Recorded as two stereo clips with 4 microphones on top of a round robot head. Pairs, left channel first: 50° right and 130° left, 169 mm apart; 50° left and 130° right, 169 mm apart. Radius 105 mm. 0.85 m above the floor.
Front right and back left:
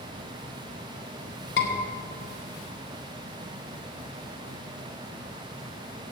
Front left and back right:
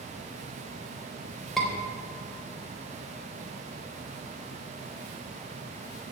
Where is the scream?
40° right, 3.5 m.